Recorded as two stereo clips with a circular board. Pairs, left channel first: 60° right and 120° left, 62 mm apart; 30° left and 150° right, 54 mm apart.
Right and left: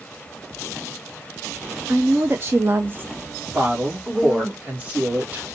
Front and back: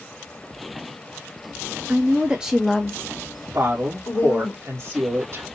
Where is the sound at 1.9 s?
170° left, 0.7 m; by 4.5 s 40° left, 1.2 m.